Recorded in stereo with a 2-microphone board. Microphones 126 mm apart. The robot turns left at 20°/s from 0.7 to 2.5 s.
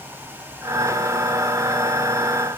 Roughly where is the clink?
No clink in this recording.